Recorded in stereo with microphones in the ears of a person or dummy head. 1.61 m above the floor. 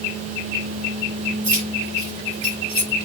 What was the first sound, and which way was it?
Keys jangling, 20° right (ahead or behind).